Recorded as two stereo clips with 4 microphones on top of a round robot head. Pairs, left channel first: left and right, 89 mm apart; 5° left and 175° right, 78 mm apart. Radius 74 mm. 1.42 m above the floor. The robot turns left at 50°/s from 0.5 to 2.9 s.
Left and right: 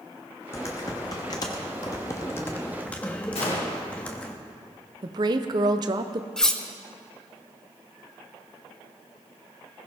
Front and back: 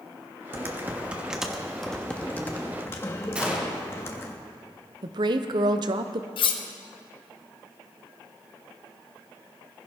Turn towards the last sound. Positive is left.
turn(degrees=5)